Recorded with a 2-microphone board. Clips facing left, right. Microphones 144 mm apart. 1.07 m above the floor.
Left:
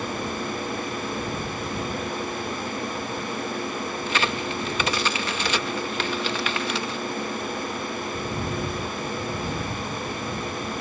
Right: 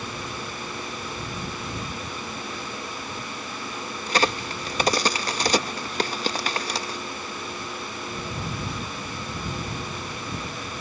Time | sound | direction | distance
4.1 | a crack | 35° right (ahead or behind) | ?